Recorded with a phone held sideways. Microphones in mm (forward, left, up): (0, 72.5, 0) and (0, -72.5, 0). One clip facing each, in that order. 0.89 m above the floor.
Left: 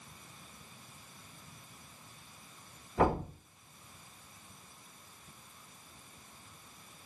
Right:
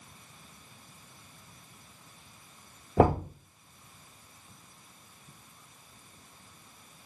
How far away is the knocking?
About 1.0 m.